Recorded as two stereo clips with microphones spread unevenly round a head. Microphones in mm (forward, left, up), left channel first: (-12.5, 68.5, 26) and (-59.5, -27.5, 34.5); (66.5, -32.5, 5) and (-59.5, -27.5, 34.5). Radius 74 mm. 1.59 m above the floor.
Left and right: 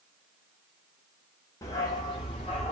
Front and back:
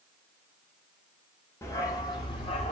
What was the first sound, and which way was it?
A dog barking, 75° left.